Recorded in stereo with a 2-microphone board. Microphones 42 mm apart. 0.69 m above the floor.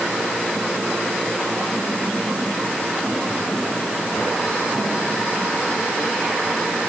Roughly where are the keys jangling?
No keys jangling in this recording.